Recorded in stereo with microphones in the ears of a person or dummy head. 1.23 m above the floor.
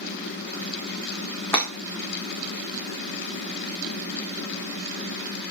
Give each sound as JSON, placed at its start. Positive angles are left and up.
{"t": 1.5, "sound": "breaking glass", "side_deg": 10, "distance_m": 4.5}